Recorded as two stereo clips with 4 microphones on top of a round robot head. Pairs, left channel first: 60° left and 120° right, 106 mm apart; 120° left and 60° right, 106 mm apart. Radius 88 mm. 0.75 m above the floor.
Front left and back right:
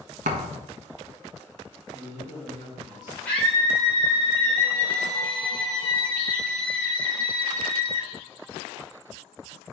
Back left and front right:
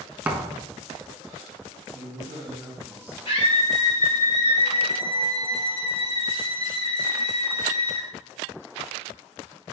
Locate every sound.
0.2 s a thud: 135° right, 1.1 m
1.9 s a man speaking: 10° left, 4 m
3.2 s a scream: 135° left, 2 m